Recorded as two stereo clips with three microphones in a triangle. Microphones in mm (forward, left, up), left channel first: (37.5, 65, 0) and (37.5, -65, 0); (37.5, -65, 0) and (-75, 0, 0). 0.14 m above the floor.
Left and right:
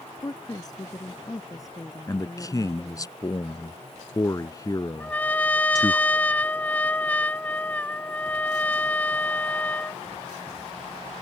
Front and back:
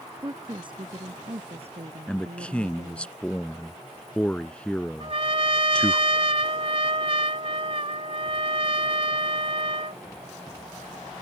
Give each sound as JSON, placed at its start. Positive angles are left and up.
{"t": 0.2, "sound": "a woman speaking", "azimuth_deg": 120}
{"t": 2.1, "sound": "a man speaking", "azimuth_deg": 45}
{"t": 5.0, "sound": "a trumpet", "azimuth_deg": 165}